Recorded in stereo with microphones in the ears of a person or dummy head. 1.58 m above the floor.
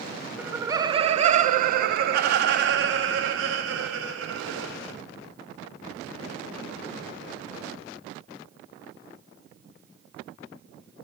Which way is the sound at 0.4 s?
10° right (ahead or behind).